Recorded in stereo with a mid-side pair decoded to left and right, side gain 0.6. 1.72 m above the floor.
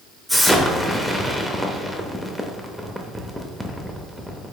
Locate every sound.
0.3 s an explosion: straight ahead, 0.5 m